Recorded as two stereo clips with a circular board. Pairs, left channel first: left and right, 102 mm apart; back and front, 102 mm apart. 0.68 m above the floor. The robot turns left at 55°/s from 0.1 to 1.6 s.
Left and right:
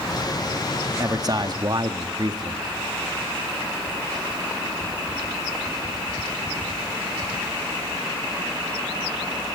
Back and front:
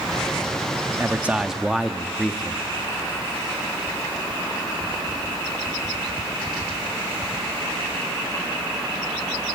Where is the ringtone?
I don't hear a ringtone.